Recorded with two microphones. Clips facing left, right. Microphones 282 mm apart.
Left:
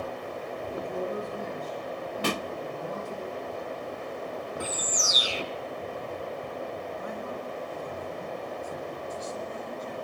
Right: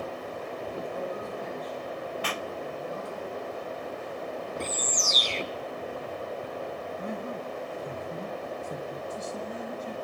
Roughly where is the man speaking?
Right.